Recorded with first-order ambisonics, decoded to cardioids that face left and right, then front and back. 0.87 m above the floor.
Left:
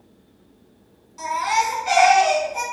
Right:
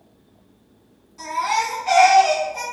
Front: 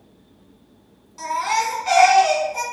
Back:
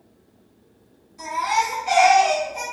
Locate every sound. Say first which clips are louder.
1.2 s a baby crying: left 1 dB, even; 20° left, 1.5 m